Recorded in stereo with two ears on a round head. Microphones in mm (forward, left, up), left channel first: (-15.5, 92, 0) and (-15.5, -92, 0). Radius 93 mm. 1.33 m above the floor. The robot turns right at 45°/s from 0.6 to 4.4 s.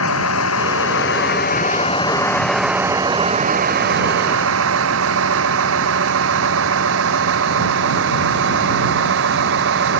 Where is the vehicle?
85° left; by 10.0 s 70° right (ahead or behind).